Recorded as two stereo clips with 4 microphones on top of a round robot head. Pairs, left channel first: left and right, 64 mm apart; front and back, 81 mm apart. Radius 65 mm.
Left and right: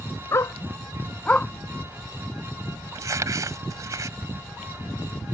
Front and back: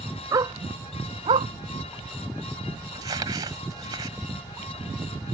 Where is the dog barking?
135° left; by 1.5 s 165° left.